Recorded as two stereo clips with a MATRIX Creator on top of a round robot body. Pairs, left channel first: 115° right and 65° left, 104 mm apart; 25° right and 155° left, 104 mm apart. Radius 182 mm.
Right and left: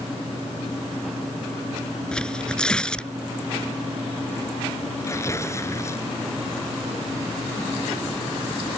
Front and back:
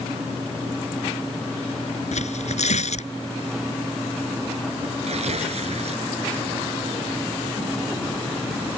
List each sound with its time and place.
2.1 s tearing paper: 30° right
5.0 s tearing paper: straight behind